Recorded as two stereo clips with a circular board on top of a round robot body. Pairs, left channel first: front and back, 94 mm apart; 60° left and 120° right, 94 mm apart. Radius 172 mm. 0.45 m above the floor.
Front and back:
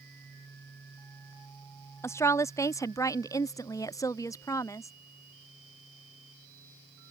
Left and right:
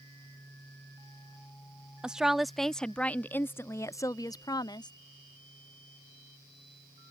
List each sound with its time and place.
2.0 s a woman speaking: 45° right; by 4.9 s 45° left